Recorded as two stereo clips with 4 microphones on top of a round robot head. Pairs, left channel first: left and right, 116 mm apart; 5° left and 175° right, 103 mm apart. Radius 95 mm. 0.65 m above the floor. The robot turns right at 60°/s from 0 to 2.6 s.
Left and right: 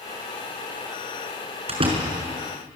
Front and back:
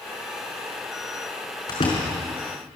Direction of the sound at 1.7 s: 60° right.